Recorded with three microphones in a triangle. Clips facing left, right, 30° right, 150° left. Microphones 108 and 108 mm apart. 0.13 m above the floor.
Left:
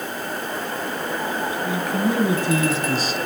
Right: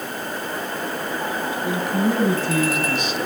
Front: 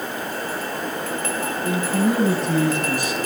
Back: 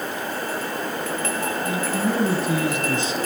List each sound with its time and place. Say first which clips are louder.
1.6 s a man speaking: right 2 dB, front 5 dB; 30° right, 1.5 m; by 3.2 s 105° left, 1.7 m